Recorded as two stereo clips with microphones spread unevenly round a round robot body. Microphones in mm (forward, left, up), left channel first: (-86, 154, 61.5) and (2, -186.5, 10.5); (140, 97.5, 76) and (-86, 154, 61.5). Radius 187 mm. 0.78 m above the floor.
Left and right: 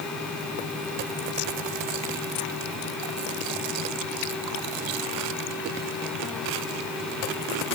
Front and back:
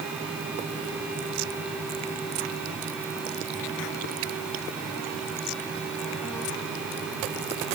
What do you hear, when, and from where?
Only background noise.